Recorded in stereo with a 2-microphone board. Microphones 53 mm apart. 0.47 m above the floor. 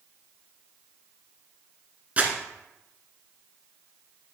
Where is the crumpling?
25° right (ahead or behind), 1.4 m.